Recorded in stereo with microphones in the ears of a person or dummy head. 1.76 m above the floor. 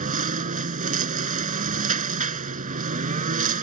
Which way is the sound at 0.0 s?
45° right (ahead or behind).